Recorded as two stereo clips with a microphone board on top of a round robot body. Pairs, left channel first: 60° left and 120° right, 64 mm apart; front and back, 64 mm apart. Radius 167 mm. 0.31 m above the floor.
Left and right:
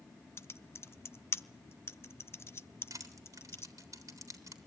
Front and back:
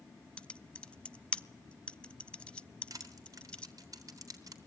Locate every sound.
0.4 s typing on a keyboard: 65° left, 0.9 m
2.9 s crushing: 150° right, 3.5 m